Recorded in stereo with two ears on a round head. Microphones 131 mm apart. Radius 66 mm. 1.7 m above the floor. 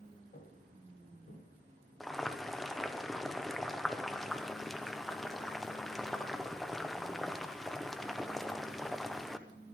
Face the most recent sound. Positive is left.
turn(degrees=0)  # may be behind; listen again after turning